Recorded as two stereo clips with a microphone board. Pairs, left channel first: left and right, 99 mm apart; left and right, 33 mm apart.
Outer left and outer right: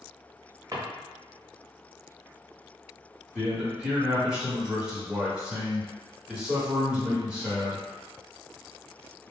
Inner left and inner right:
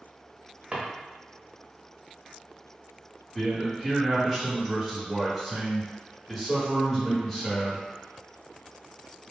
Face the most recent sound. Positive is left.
turn(degrees=-10)  # may be behind; listen again after turning